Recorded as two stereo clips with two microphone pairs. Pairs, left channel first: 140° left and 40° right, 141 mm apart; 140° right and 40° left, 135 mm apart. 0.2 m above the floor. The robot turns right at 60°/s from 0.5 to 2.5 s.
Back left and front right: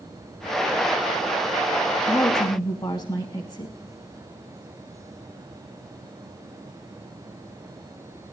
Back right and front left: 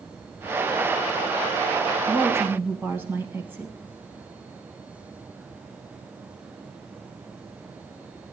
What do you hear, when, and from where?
2.1 s a woman speaking: 75° left, 1.2 m; by 3.8 s 105° left, 1.2 m